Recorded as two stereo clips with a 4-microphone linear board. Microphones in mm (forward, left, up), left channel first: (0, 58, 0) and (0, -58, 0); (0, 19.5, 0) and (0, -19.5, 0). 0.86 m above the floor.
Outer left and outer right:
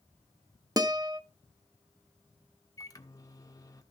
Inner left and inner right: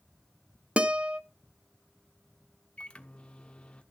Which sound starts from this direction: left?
A microwave, at 2.8 s.